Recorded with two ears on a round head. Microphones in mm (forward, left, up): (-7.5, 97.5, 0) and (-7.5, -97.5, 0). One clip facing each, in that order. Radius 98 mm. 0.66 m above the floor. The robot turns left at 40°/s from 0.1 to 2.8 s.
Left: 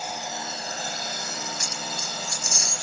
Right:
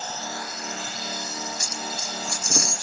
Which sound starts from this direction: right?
A dropped coin, at 1.6 s.